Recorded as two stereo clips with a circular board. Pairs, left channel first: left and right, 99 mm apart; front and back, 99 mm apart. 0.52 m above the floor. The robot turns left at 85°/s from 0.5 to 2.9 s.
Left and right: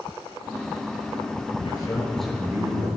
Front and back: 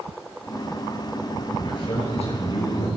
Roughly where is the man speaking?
Ahead left.